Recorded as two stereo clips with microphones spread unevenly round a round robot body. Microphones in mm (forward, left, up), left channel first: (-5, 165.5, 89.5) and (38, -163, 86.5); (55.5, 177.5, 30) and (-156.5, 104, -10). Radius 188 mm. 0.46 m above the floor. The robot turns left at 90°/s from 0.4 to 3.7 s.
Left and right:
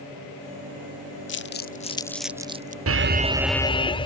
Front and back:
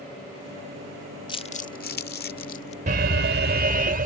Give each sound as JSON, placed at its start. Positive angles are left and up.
{"t": 1.3, "sound": "crumpling", "azimuth_deg": 90}
{"t": 2.9, "sound": "an alarm", "azimuth_deg": -115}